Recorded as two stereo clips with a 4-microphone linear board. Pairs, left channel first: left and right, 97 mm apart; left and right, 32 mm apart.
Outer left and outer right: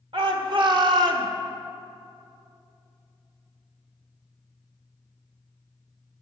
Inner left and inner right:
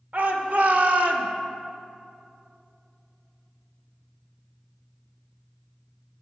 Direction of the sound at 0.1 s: 60° right (ahead or behind).